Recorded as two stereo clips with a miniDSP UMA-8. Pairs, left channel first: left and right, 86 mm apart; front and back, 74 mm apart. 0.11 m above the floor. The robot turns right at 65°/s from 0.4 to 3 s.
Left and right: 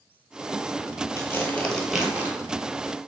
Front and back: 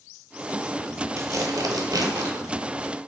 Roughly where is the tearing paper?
Behind left.